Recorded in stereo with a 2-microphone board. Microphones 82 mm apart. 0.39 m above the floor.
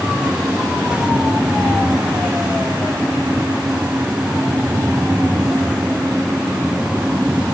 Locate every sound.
Only background noise.